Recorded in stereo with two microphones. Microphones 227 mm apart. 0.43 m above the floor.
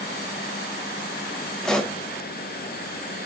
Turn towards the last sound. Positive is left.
turn(degrees=5)  # may be behind; listen again after turning